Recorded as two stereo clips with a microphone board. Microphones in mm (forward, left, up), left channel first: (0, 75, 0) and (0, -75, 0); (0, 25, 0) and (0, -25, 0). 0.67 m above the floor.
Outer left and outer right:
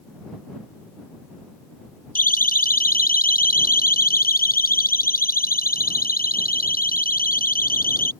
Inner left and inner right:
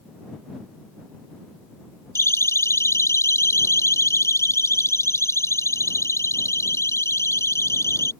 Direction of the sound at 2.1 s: 70° left (ahead or behind).